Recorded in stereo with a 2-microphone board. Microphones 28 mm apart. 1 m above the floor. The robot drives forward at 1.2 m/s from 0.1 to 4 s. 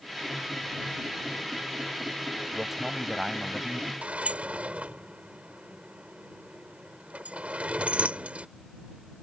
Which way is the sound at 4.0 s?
55° right (ahead or behind).